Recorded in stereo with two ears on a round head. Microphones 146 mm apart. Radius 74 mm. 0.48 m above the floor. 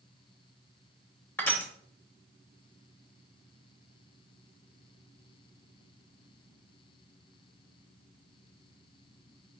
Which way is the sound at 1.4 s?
10° left (ahead or behind).